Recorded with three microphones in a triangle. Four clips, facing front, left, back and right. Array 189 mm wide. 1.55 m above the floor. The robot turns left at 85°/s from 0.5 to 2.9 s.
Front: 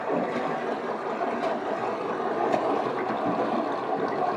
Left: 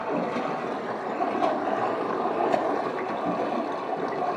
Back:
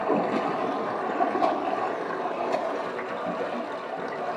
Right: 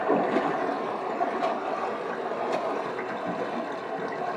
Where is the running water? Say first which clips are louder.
Right 3 dB, back 2 dB; 125° right, 2 m; by 4.4 s 30° left, 2 m.